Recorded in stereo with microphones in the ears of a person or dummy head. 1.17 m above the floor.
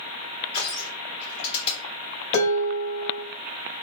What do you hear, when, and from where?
0.5 s crushing: 35° left (ahead or behind), 1.9 m
2.3 s dishes clattering: 60° left (ahead or behind), 1.3 m